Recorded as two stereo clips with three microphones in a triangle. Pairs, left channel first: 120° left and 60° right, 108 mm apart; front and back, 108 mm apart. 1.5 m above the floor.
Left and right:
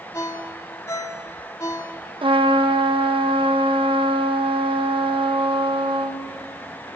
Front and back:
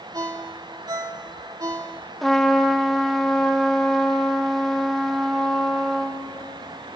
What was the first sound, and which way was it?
A ringtone, 155° left.